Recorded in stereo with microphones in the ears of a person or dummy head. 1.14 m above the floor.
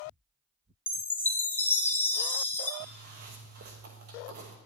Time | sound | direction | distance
0.9 | a chime | 10° left (ahead or behind) | 0.5 m
2.8 | a zipper | 50° right (ahead or behind) | 1.1 m